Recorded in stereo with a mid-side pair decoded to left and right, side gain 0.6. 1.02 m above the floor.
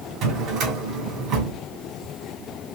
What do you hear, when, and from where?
0.2 s a drawer: 60° right, 2 m